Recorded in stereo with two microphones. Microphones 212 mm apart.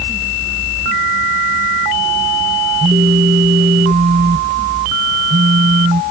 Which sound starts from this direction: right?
A phone buzzing, at 2.8 s.